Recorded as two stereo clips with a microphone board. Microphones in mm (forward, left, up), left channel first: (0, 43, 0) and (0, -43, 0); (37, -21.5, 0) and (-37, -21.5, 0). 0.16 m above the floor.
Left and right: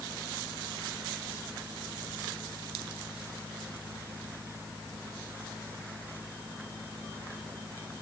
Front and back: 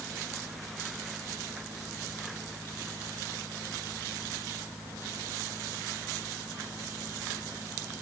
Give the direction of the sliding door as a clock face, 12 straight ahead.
I don't hear a sliding door.